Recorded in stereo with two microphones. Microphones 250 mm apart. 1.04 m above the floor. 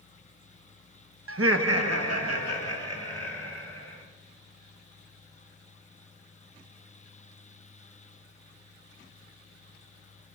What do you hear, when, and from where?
1.3 s laughter: 55° right (ahead or behind), 0.5 m; by 4.0 s 70° right (ahead or behind), 4.5 m